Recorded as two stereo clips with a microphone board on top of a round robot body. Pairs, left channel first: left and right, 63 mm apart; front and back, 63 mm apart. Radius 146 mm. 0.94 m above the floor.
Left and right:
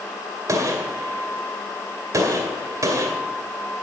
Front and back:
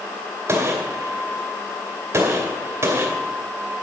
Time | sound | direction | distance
0.5 | a gunshot | 125° right | 1.9 m